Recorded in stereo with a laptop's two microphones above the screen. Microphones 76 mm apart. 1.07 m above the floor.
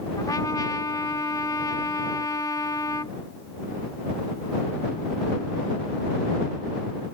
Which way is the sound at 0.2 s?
55° left (ahead or behind).